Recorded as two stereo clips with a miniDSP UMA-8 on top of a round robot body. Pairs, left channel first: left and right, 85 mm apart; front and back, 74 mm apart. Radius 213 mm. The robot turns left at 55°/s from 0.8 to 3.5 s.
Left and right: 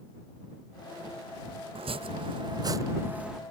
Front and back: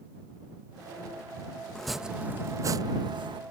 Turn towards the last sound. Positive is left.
turn(degrees=180)